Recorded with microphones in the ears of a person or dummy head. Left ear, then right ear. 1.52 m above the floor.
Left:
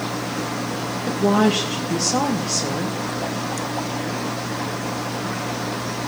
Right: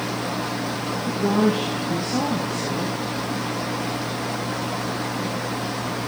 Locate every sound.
1.1 s a woman speaking: 60° left (ahead or behind), 1.5 m